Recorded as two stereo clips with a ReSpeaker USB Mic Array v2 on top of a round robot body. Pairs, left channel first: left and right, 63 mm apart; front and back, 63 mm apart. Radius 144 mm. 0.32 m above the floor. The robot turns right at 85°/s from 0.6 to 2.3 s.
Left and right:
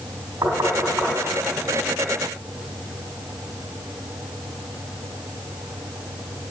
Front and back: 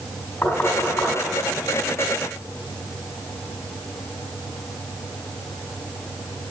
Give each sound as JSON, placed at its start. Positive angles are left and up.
{"t": 0.4, "sound": "knocking", "azimuth_deg": -55, "distance_m": 4.5}